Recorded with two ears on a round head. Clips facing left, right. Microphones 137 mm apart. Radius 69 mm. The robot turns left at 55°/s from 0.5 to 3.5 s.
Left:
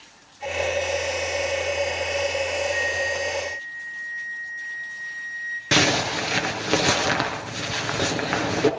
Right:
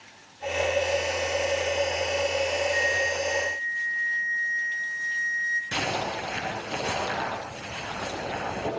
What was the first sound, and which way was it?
A flute, 40° right.